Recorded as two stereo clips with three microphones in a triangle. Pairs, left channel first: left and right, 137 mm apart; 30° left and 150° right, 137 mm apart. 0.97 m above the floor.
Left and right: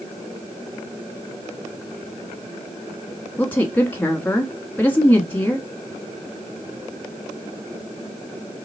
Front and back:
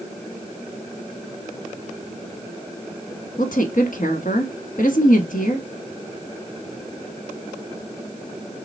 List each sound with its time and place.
3.4 s a woman speaking: 15° left, 1.1 m